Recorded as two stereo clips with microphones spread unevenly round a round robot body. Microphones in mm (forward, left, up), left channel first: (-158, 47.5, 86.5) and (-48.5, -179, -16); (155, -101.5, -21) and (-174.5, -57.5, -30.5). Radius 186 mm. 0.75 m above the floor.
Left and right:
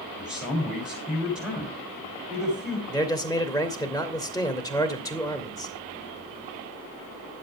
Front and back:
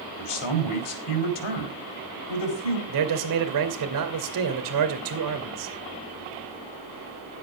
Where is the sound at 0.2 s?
15° left, 3 m.